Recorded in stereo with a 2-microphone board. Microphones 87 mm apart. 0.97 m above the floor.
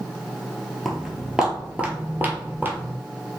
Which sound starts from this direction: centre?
Footsteps, at 0.8 s.